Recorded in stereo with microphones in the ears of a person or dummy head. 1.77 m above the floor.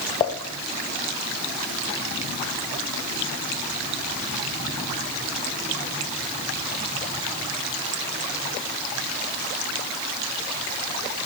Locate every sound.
0.2 s dishes clattering: 15° left (ahead or behind), 0.7 m